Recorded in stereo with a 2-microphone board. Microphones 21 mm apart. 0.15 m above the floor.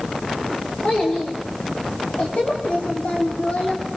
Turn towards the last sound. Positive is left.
turn(degrees=75)  # may be behind; listen again after turning